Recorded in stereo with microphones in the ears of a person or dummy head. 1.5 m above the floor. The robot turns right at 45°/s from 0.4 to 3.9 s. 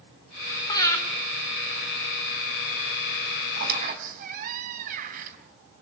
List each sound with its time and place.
0.7 s breathing: 20° left (ahead or behind), 4 m; by 1.0 s 5° left (ahead or behind), 4 m
3.6 s a squeak: 55° right (ahead or behind), 3.5 m; by 5.4 s 40° right (ahead or behind), 3.5 m